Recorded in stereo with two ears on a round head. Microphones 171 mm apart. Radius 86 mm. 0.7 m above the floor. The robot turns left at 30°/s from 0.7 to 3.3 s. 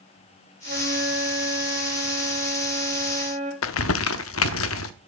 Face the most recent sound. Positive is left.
turn(degrees=75)  # may be behind; listen again after turning